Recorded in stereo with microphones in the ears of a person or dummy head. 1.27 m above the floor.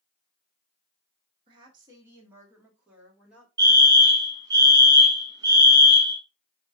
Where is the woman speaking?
35° right (ahead or behind), 1.1 m; by 3.5 s 10° right (ahead or behind), 2 m.